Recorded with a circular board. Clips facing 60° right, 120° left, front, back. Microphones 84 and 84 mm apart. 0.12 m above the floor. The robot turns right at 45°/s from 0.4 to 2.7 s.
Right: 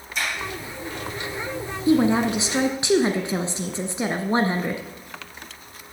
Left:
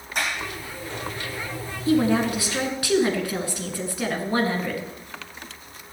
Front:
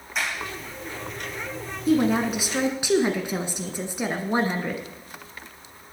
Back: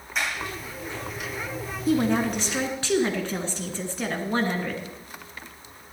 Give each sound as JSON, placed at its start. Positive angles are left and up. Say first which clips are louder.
{"t": 0.1, "sound": "a sliding door", "louder": "even, even", "azimuth_deg": 90, "distance_m": 6.0}
{"t": 1.9, "sound": "a woman speaking", "louder": "right 2 dB, front 2 dB", "azimuth_deg": -90, "distance_m": 1.3}